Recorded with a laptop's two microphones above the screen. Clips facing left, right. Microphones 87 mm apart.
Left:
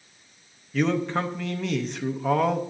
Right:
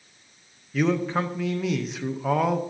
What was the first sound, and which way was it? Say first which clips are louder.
A man speaking: right 1 dB; 5° right (ahead or behind).